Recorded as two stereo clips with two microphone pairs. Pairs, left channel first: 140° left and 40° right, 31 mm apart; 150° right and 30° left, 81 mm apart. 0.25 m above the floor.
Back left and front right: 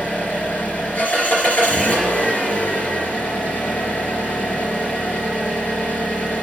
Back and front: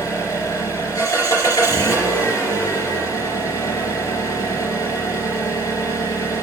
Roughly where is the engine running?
Behind.